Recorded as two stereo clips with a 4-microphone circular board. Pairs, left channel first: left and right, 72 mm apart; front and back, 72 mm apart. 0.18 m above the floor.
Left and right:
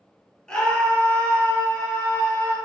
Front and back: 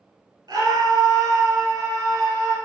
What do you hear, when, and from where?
0.5 s a scream: 160° left, 3 m; by 2.6 s 145° left, 5.5 m